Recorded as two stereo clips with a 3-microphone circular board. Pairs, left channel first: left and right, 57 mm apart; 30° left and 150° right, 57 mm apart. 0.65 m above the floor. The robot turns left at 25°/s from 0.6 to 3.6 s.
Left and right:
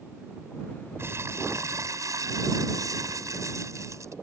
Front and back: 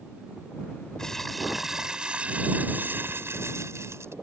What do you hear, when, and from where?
1.0 s crumpling: 50° right; by 4.2 s 115° right